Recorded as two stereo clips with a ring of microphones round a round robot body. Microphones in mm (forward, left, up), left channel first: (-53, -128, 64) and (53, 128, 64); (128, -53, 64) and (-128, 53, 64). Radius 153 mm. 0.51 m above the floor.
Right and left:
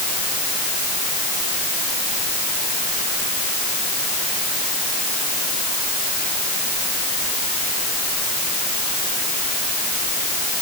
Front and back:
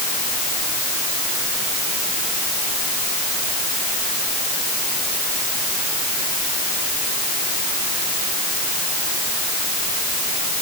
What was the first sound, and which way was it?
Only background noise.